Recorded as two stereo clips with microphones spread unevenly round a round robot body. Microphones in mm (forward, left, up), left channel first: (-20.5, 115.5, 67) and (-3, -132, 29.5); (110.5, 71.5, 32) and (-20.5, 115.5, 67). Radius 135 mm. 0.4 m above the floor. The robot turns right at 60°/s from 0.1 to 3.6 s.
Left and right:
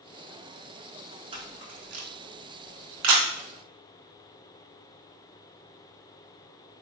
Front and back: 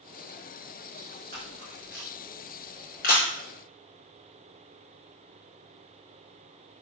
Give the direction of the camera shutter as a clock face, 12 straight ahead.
5 o'clock.